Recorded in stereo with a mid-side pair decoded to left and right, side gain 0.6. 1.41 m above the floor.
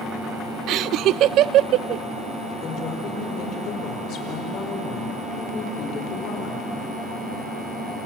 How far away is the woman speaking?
About 5.5 m.